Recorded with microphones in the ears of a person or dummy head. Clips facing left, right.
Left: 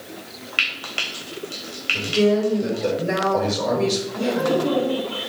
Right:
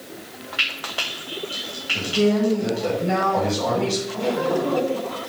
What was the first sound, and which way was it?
Frying, 40° left (ahead or behind).